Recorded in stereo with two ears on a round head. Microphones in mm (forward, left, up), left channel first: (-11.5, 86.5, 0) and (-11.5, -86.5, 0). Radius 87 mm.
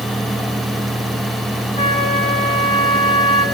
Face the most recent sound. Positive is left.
turn(degrees=30)  # may be behind; listen again after turning